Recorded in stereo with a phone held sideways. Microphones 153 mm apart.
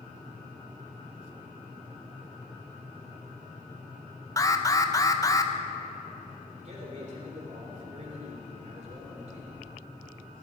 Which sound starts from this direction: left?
An alarm, at 4.4 s.